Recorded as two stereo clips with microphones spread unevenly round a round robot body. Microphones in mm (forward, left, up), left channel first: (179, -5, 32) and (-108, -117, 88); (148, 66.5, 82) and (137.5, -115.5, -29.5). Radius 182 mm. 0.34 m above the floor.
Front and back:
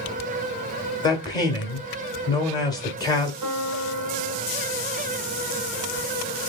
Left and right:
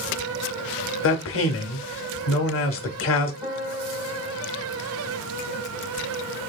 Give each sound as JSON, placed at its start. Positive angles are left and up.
{"t": 1.0, "sound": "a man speaking", "azimuth_deg": 75, "distance_m": 1.0}
{"t": 3.4, "sound": "a piano", "azimuth_deg": -145, "distance_m": 1.5}